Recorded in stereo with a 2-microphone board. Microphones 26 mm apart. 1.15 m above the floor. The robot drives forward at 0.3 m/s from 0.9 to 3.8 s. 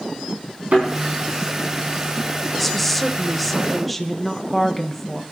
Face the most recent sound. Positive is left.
turn(degrees=5)  # may be behind; listen again after turning